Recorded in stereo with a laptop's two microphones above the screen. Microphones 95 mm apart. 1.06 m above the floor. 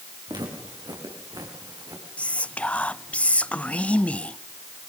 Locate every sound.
0.3 s footsteps: 50° right (ahead or behind), 5 m; by 2.0 s 40° right (ahead or behind), 4 m
2.2 s whispering: 15° left (ahead or behind), 0.6 m